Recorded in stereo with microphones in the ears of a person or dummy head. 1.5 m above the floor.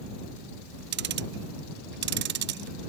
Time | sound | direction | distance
0.9 | ticking | 50° right (ahead or behind) | ?